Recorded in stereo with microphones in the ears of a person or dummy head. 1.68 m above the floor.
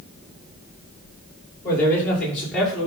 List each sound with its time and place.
1.6 s a man speaking: 15° left (ahead or behind), 5 m; by 2.9 s centre (ahead or behind), 5.5 m